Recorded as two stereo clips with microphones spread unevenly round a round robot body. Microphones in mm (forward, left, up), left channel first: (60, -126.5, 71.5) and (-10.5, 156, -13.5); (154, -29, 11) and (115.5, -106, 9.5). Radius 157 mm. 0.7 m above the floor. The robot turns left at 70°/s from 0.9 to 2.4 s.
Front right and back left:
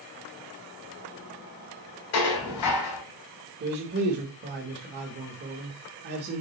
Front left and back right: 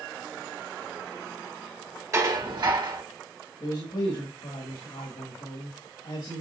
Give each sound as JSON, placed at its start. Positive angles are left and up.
{"t": 2.1, "sound": "dishes clattering", "azimuth_deg": -65, "distance_m": 3.5}
{"t": 3.6, "sound": "a man speaking", "azimuth_deg": 105, "distance_m": 1.6}